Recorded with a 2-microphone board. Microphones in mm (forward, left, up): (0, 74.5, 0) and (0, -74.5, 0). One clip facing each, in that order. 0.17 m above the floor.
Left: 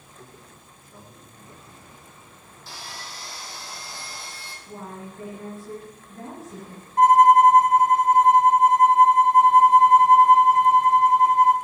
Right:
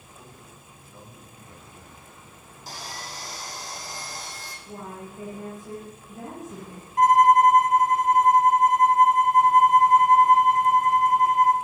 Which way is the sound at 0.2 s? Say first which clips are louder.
Left 2 dB; 15° left (ahead or behind).